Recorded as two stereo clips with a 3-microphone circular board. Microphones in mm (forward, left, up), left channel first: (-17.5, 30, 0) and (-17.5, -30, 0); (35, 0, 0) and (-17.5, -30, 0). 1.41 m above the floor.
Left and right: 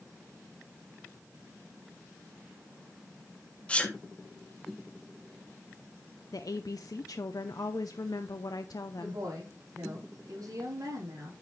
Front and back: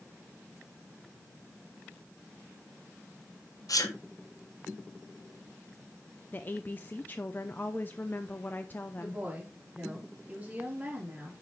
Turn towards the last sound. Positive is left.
turn(degrees=-90)